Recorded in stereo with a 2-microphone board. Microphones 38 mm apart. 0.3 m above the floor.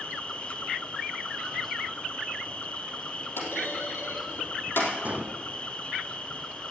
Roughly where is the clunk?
Left.